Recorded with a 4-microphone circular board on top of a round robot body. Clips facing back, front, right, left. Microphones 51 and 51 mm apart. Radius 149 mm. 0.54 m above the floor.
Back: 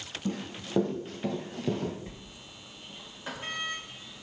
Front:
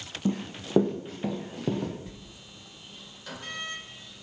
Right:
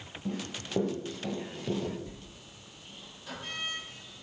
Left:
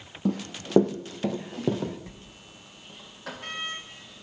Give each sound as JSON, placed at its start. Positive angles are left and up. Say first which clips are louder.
{"t": 0.2, "sound": "running footsteps", "louder": "front 5 dB, left 7 dB", "azimuth_deg": 70, "distance_m": 1.1}
{"t": 2.1, "sound": "a sliding door", "louder": "even, left 1 dB", "azimuth_deg": 115, "distance_m": 2.0}